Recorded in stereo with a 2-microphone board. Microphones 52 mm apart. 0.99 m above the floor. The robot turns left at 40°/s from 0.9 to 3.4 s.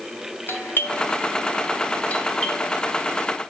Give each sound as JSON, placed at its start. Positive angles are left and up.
{"t": 0.5, "sound": "a doorbell", "side_deg": 45, "distance_m": 1.6}